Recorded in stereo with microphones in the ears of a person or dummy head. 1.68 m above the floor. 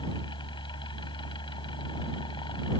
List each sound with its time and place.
0.0 s a fan: 25° left (ahead or behind)